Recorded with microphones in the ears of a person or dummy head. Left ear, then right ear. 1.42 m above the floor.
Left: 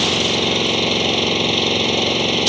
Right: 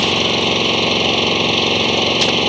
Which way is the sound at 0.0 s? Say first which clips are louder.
Right 2 dB; centre (ahead or behind).